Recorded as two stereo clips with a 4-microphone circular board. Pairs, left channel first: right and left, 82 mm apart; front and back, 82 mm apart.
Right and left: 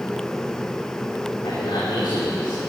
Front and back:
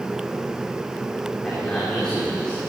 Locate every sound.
1.4 s a man speaking: 80° right, 3 m